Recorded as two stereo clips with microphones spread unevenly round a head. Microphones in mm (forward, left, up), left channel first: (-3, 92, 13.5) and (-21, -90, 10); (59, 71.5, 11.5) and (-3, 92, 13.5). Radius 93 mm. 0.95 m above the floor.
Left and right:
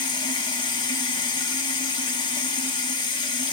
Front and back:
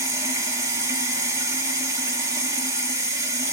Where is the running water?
145° left, 1.2 m.